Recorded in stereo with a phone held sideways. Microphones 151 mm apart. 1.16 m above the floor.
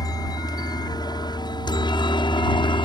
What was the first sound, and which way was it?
A helicopter, 25° left (ahead or behind).